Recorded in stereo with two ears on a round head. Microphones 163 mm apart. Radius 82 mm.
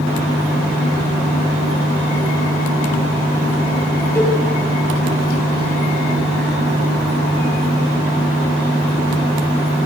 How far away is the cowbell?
About 6 m.